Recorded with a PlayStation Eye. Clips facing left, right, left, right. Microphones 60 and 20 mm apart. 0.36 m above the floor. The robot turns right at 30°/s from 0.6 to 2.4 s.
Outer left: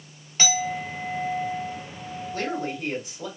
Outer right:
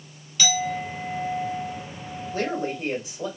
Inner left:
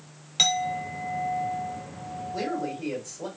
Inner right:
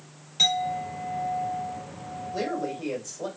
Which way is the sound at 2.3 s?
20° right (ahead or behind).